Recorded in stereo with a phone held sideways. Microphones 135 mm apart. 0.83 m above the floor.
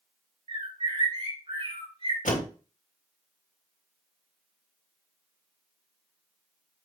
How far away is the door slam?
About 1.9 m.